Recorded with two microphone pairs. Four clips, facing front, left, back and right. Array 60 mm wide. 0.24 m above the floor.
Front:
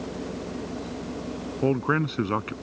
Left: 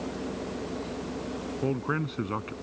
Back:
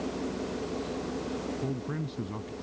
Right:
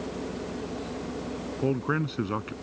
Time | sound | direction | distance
1.6 | a man speaking | 10° right | ?